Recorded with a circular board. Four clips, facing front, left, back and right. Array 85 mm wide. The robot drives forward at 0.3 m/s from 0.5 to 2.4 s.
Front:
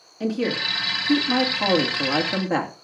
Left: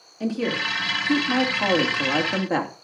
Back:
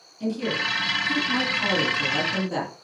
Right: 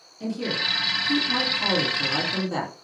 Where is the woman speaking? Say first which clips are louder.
Left 4 dB, front 2 dB; 35° left, 2.5 m; by 2.7 s 45° left, 2 m.